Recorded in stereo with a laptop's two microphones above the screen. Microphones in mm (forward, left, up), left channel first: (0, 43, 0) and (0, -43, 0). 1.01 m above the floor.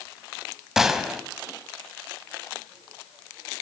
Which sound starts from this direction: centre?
A gunshot, at 0.8 s.